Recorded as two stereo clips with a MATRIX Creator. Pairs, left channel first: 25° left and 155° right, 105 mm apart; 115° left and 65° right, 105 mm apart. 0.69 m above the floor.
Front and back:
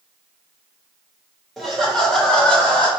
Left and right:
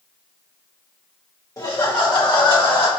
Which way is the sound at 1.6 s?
115° left.